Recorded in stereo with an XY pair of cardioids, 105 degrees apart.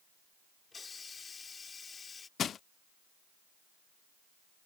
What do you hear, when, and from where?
0.7 s a hiss: 35° left
2.4 s crushing: 55° left